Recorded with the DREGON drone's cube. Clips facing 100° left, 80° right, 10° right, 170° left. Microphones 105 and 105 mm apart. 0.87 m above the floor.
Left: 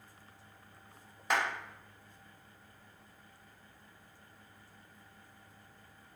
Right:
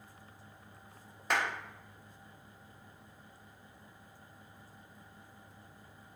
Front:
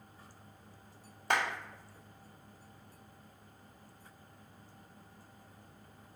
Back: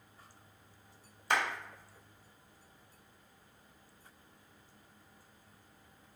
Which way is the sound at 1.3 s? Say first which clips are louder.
Left 1 dB, even; 10° left.